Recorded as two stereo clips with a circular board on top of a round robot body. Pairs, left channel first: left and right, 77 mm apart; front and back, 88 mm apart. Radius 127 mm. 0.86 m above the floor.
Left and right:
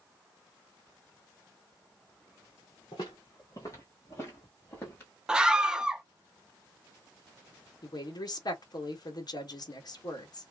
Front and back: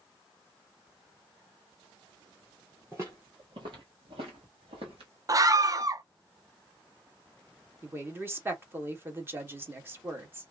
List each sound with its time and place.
2.9 s footsteps: 115° left, 1.0 m; by 5.1 s 165° left, 1.9 m
5.3 s a scream: 165° right, 0.6 m
7.8 s a woman speaking: 115° left, 1.3 m